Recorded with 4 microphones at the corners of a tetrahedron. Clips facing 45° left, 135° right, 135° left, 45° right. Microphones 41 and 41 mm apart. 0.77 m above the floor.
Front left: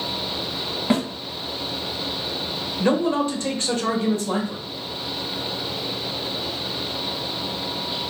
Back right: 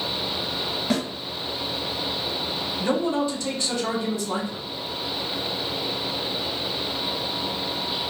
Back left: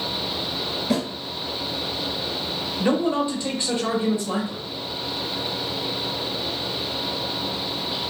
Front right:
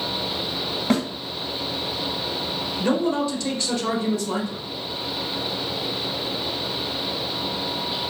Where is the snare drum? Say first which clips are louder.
Front left 4 dB, front right 2 dB; 15° right, 1.6 m.